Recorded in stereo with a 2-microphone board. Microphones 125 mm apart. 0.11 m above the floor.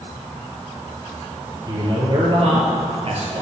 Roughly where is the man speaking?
Right.